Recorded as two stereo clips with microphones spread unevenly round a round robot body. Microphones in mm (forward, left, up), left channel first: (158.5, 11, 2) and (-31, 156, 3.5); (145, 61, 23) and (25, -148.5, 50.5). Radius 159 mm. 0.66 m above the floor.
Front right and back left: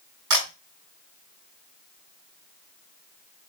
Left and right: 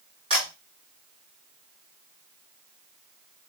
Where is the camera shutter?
165° left, 1.8 m.